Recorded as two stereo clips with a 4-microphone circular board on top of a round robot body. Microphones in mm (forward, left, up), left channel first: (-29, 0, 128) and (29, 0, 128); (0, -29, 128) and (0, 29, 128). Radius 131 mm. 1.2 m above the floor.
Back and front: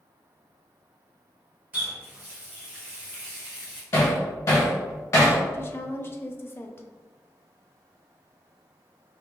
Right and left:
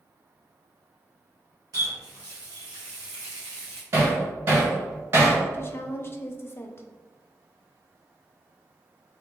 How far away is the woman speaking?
About 0.6 m.